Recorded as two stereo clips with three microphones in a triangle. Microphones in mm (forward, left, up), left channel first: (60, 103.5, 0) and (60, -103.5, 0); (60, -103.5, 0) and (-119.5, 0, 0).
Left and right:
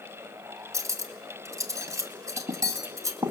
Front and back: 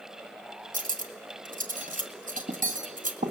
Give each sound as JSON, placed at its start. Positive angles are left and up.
{"t": 0.7, "sound": "cutlery clinking", "azimuth_deg": -165, "distance_m": 1.9}